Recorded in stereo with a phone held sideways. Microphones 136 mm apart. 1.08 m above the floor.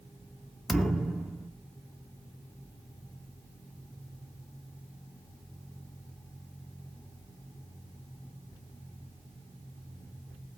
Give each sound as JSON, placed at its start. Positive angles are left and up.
{"t": 0.7, "sound": "a thud", "side_deg": 0, "distance_m": 0.6}